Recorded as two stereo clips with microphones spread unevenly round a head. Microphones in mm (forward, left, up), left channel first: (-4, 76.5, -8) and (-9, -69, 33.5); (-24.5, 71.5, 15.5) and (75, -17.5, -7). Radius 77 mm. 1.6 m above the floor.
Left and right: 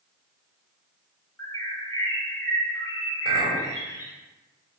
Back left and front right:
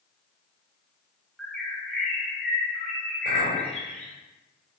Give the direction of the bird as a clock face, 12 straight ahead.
6 o'clock.